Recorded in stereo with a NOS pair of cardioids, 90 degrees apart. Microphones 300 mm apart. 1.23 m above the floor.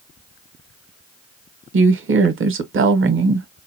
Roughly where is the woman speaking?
Ahead right.